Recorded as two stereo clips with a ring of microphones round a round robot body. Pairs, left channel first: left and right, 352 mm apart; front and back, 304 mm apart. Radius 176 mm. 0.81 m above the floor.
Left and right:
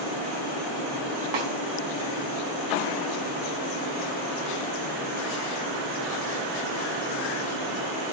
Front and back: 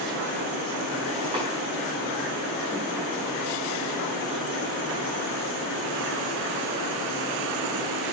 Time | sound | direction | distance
1.3 | a snare drum | 105° right | 4 m